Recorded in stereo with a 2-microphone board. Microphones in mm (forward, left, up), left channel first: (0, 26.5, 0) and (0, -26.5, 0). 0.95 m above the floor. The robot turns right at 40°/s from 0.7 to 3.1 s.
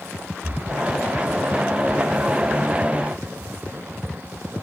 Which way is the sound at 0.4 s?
40° right (ahead or behind).